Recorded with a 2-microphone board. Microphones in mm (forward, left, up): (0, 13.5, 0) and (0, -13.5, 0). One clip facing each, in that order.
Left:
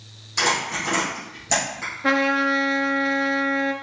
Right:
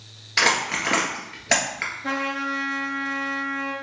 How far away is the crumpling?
About 1.6 m.